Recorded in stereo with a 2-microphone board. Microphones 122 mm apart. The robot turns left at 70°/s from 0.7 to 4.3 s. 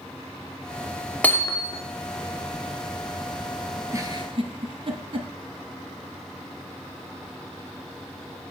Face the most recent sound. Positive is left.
turn(degrees=-50)  # may be behind; listen again after turning